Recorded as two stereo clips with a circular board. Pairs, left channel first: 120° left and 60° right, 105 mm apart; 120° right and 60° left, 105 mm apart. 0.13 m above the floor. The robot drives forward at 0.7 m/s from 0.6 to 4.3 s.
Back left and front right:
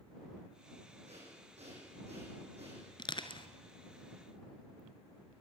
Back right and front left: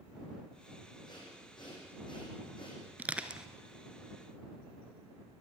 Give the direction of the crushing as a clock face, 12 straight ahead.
8 o'clock.